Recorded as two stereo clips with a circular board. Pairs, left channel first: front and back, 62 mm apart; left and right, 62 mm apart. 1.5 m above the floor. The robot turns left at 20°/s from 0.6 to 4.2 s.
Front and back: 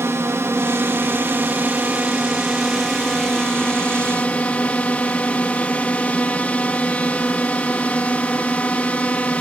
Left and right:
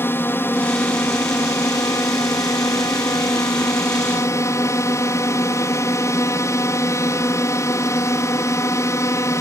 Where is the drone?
140° left; by 9.4 s 65° left.